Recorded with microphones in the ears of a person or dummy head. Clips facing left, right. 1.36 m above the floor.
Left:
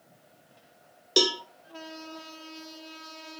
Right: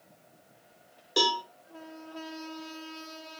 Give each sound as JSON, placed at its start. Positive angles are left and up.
{"t": 1.2, "sound": "a cowbell", "side_deg": 30, "distance_m": 0.5}